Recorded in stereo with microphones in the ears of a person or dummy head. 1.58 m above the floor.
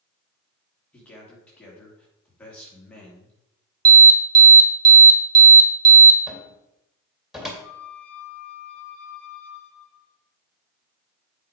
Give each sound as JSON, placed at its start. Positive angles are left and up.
{"t": 0.9, "sound": "a man speaking", "side_deg": 10, "distance_m": 2.5}
{"t": 3.9, "sound": "an alarm", "side_deg": -20, "distance_m": 2.0}
{"t": 6.3, "sound": "a cupboard door", "side_deg": -5, "distance_m": 2.0}
{"t": 7.6, "sound": "a flute", "side_deg": -5, "distance_m": 4.5}